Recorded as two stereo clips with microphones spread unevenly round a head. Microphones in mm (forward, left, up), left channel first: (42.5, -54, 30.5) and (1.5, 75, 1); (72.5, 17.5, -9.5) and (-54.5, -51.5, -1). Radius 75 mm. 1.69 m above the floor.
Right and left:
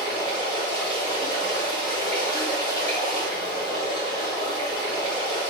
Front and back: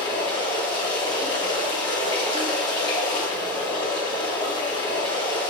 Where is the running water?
30° right, 1.5 m.